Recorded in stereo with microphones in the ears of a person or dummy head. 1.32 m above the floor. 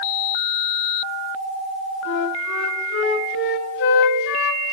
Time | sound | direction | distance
2.0 | a flute | 75° left (ahead or behind) | 3 m